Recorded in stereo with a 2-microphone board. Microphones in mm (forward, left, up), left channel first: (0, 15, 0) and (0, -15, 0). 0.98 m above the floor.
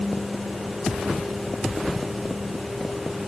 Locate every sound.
Only background noise.